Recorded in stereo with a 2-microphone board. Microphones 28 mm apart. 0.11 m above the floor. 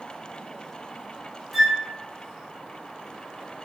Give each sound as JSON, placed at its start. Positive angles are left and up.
{"t": 1.5, "sound": "a flute", "side_deg": -10, "distance_m": 1.5}